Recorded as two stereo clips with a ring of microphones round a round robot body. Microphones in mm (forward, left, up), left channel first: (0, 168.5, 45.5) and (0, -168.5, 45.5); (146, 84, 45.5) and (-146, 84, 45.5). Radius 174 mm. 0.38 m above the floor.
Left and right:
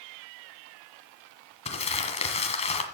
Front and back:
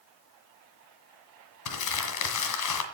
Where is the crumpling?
20° left, 1.8 m.